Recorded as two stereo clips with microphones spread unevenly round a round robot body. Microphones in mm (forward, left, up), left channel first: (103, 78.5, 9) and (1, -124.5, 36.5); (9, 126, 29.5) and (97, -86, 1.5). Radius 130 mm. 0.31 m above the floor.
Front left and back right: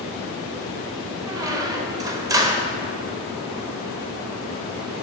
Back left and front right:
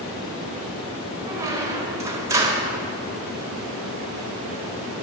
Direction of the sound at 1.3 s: 50° right.